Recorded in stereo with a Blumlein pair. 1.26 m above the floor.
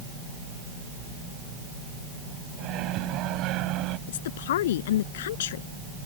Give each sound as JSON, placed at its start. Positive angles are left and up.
{"t": 2.6, "sound": "a microwave", "azimuth_deg": -35}
{"t": 4.1, "sound": "a woman speaking", "azimuth_deg": 55}